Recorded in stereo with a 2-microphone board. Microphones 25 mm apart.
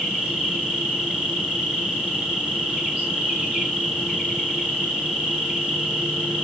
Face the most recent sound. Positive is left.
turn(degrees=-55)  # may be behind; listen again after turning